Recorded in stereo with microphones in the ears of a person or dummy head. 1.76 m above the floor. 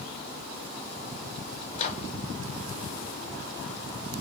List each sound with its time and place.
1.8 s a microwave: 50° left (ahead or behind), 0.9 m